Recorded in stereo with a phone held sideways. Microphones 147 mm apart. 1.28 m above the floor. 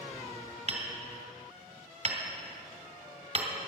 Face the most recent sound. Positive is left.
turn(degrees=-55)  # may be behind; listen again after turning